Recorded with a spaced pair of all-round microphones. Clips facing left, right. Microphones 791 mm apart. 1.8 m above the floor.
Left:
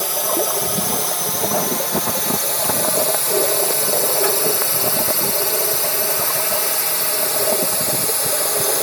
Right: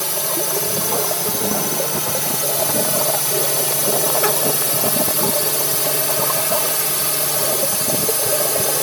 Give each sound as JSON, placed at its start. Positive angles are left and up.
{"t": 0.0, "sound": "a drone", "side_deg": -55}